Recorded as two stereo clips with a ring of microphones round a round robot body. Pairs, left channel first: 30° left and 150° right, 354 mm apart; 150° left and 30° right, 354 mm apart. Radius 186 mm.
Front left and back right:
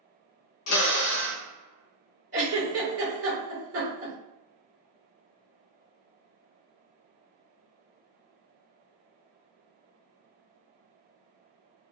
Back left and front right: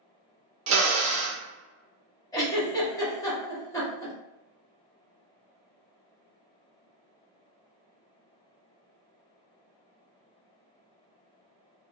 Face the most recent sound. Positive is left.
turn(degrees=-135)